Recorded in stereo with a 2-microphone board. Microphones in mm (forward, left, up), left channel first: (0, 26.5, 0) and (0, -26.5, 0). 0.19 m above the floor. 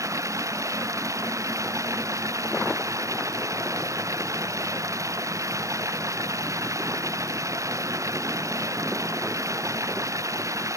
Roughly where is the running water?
Right.